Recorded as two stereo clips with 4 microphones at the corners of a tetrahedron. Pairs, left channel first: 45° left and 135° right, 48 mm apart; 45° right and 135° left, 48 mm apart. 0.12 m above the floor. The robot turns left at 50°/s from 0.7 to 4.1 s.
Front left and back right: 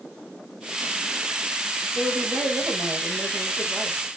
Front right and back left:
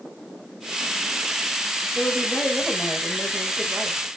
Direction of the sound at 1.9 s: 100° right.